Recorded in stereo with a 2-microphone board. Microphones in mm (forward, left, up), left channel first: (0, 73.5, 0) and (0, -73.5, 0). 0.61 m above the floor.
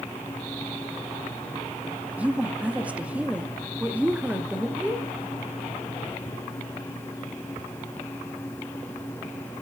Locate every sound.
2.2 s a woman speaking: 10° right (ahead or behind), 0.8 m